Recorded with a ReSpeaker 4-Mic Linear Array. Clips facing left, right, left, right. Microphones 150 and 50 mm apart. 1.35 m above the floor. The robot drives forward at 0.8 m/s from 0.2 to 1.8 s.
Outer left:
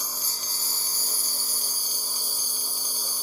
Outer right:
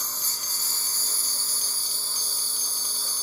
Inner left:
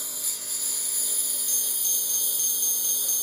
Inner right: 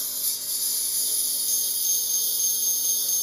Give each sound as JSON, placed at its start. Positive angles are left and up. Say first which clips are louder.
{"t": 0.0, "sound": "a lawn mower", "louder": "outer left 1 dB, inner right 1 dB", "side_deg": 10}